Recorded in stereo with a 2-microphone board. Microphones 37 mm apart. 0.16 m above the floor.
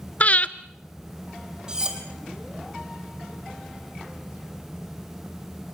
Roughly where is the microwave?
I don't hear a microwave.